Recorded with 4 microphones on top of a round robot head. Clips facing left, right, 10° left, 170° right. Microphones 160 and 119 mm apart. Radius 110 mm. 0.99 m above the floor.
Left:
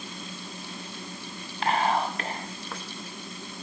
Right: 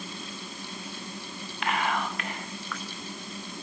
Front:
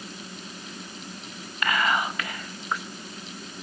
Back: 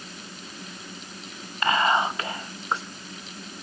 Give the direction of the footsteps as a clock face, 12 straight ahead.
I don't hear footsteps.